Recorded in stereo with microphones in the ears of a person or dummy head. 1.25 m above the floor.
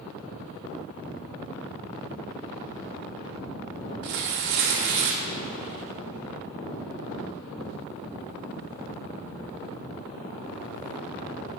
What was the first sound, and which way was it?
Tearing paper, 60° right (ahead or behind).